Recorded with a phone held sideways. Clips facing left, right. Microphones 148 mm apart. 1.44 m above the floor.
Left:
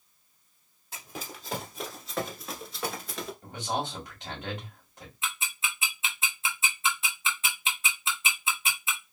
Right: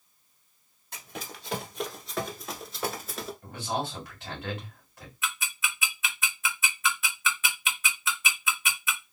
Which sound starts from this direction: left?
Ticking, at 5.2 s.